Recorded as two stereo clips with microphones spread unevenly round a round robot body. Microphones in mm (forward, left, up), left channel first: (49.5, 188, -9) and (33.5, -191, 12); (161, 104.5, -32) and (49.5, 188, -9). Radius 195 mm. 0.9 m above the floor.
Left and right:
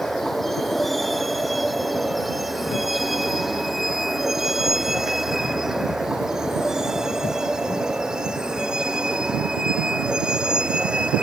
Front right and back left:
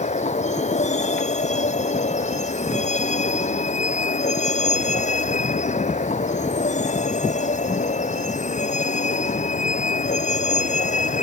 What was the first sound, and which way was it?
A vehicle, straight ahead.